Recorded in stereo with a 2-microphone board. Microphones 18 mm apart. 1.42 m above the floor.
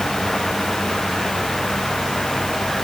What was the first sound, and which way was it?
Only background noise.